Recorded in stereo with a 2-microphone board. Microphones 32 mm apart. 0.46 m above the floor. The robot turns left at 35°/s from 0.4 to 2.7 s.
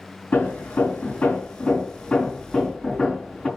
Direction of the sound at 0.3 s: 90° left.